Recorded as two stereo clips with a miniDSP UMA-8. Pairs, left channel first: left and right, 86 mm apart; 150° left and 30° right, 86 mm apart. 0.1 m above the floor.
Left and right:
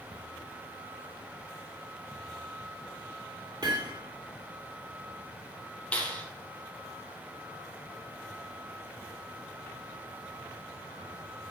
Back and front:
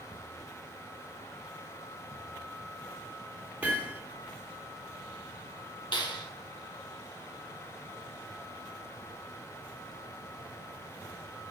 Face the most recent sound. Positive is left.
turn(degrees=160)